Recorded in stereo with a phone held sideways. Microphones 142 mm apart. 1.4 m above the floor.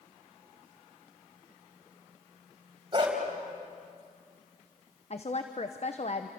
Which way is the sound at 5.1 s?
50° left (ahead or behind).